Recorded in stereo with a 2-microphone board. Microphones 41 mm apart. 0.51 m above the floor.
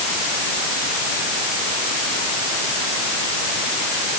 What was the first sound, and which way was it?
Only background noise.